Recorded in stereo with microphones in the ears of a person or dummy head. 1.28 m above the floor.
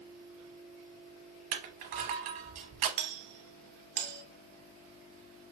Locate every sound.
1.5 s crushing: 50° right (ahead or behind), 0.8 m
3.0 s a doorbell: 50° right (ahead or behind), 0.8 m